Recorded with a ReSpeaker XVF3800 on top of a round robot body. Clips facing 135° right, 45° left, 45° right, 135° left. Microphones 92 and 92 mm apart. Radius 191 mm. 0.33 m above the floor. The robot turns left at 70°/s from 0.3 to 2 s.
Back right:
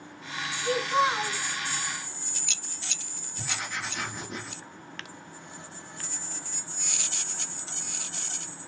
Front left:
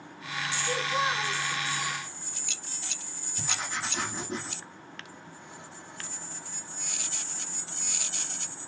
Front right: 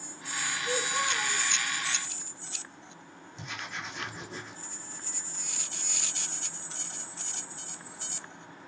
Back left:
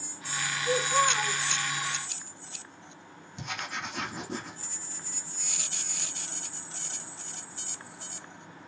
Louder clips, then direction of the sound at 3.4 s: Even, back left 3 dB; 105° left.